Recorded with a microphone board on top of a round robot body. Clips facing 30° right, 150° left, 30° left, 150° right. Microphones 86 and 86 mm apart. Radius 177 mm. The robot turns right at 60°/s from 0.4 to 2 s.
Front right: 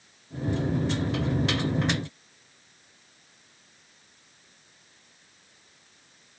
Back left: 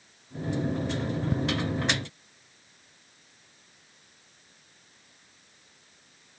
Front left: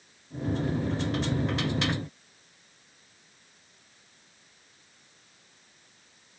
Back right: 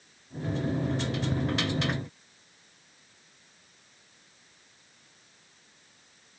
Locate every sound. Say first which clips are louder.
1.3 s ticking: back left 2 dB, even; 125° left, 0.6 m